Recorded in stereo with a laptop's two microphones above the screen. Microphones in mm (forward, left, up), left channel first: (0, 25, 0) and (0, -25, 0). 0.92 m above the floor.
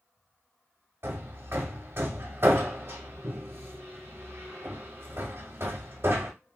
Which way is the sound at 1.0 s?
50° right (ahead or behind).